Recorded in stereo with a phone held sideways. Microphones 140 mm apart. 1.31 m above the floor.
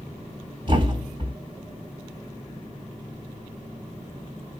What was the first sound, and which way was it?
A thud, 40° right (ahead or behind).